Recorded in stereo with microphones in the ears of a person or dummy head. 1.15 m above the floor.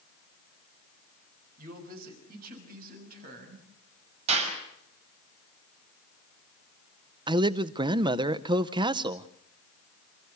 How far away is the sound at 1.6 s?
About 5 m.